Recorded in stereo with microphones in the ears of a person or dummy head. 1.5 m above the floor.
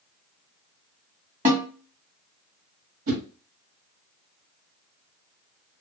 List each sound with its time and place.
1.4 s a snare drum: 45° right (ahead or behind), 1.1 m
3.1 s a whoosh: 75° right (ahead or behind), 0.9 m